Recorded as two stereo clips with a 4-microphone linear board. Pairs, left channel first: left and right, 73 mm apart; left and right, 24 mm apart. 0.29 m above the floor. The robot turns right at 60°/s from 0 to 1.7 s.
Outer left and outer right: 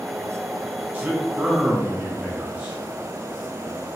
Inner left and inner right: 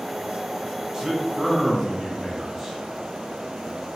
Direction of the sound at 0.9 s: 25° right (ahead or behind).